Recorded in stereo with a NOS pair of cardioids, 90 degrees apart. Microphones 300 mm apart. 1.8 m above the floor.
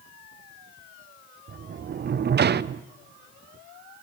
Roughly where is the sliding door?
Ahead right.